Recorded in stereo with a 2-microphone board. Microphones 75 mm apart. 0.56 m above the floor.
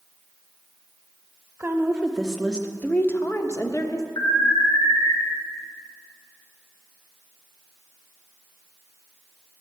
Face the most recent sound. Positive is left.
turn(degrees=65)  # may be behind; listen again after turning